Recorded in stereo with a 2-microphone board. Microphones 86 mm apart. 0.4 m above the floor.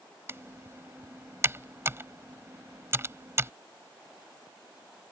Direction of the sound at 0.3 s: 30° right (ahead or behind).